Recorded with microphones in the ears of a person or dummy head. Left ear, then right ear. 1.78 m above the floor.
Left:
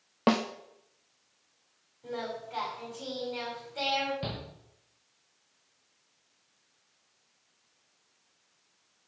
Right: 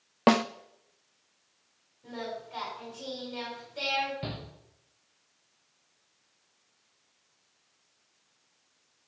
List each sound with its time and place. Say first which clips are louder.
0.3 s a snare drum: right 4 dB; 20° right (ahead or behind), 0.5 m
2.0 s singing: left 2 dB; 30° left (ahead or behind), 7.5 m
4.2 s a shout: left 1 dB; 15° left (ahead or behind), 2.5 m